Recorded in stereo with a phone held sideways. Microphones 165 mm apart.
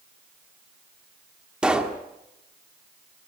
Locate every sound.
1.6 s a pop: 5° right (ahead or behind), 1.6 m